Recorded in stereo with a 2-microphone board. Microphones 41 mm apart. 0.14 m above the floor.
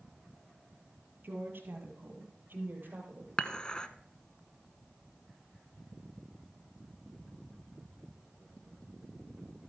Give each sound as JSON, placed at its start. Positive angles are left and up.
{"t": 1.2, "sound": "a woman speaking", "side_deg": -60, "distance_m": 3.0}
{"t": 3.4, "sound": "dishes clattering", "side_deg": 25, "distance_m": 0.8}